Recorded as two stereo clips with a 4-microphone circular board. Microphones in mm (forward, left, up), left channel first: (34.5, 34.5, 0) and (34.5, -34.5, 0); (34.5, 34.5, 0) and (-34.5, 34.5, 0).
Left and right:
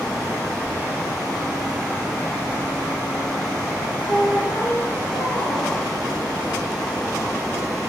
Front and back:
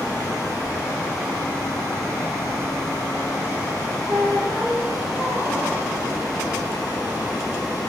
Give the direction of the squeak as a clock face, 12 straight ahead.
9 o'clock.